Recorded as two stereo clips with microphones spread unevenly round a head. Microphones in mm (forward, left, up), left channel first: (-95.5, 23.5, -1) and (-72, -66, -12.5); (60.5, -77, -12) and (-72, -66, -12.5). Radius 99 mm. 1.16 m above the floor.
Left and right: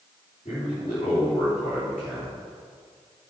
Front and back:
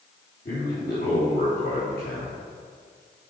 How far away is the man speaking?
About 3.5 m.